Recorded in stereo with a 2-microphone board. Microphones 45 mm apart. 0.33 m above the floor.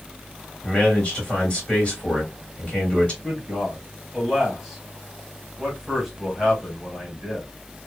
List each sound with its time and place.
0.6 s a man speaking: 25° left (ahead or behind), 2 m
3.2 s a man speaking: 5° right (ahead or behind), 1.7 m